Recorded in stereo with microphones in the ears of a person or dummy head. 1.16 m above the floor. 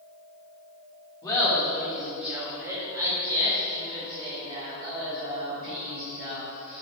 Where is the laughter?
15° left (ahead or behind), 1.8 m; by 6.8 s 50° right (ahead or behind), 5 m.